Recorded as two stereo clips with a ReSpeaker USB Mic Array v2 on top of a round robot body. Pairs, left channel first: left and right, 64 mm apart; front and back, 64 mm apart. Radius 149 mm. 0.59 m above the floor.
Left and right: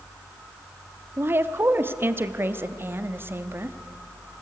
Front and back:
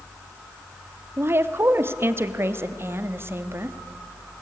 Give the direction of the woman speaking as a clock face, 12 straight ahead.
5 o'clock.